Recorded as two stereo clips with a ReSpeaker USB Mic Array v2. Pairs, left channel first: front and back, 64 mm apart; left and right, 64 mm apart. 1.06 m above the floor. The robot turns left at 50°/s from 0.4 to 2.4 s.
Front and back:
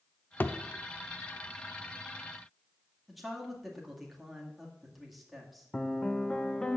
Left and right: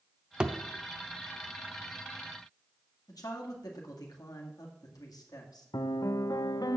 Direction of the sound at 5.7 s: 80° left.